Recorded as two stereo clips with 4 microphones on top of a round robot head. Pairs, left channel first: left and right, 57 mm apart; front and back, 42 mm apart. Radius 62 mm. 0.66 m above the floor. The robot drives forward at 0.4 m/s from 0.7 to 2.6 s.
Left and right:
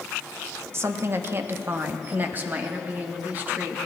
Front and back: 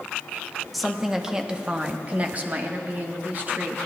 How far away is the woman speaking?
About 0.8 m.